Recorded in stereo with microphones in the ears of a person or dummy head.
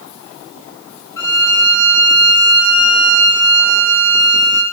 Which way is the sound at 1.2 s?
10° left (ahead or behind).